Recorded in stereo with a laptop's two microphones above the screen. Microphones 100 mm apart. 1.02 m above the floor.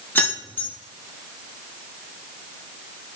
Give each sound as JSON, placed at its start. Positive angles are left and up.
{"t": 0.1, "sound": "keys jangling", "side_deg": 20, "distance_m": 1.1}